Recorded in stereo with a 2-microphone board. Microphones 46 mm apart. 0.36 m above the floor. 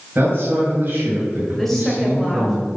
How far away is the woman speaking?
About 1.8 m.